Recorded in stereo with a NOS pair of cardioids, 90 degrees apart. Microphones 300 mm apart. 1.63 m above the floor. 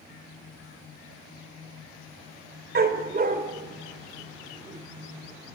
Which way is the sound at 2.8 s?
35° right.